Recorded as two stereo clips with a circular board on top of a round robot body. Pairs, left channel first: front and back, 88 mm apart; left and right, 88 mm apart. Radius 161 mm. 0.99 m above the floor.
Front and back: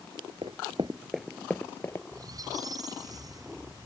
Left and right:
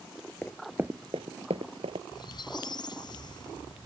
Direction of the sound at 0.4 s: 160° left.